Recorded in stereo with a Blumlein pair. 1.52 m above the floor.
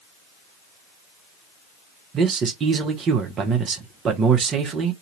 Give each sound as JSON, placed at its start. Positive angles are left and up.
{"t": 2.1, "sound": "a man speaking", "azimuth_deg": -25, "distance_m": 1.1}